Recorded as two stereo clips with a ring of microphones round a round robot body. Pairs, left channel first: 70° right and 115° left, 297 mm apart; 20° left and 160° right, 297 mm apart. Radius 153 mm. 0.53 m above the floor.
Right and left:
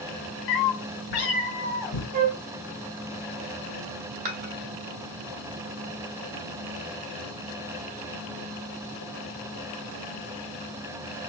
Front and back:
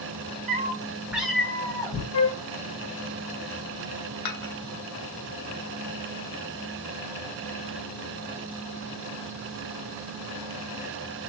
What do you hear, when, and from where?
0.5 s a cat meowing: 90° right, 1.0 m; by 2.0 s 55° right, 1.3 m
2.1 s a flute: 50° left, 1.1 m
4.2 s dishes clattering: 45° left, 1.6 m